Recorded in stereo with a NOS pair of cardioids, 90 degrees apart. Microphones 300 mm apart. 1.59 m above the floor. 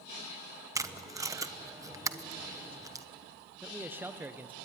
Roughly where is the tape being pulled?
Ahead.